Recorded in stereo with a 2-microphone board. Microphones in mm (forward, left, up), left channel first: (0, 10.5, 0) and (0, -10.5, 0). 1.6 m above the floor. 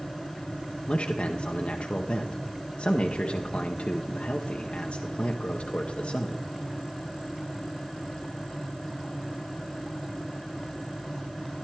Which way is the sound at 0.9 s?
60° left (ahead or behind).